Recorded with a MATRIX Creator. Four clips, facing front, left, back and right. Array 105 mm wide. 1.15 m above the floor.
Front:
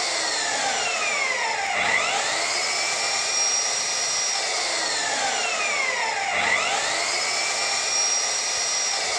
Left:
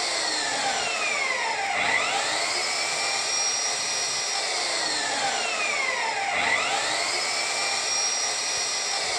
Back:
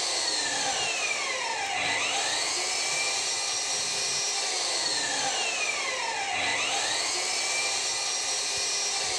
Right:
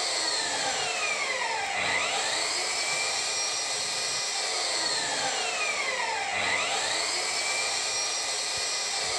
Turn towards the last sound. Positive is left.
turn(degrees=25)